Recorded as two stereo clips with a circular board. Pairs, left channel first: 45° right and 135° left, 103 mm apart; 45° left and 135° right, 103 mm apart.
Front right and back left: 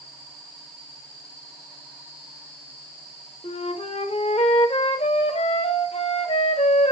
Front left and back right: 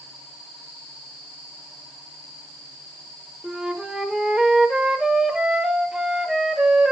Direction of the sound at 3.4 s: 50° right.